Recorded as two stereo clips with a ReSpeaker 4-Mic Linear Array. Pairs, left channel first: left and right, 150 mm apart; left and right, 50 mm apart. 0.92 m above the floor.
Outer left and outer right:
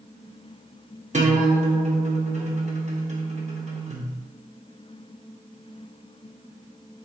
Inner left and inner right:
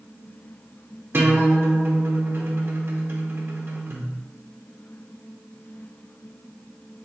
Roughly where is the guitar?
Right.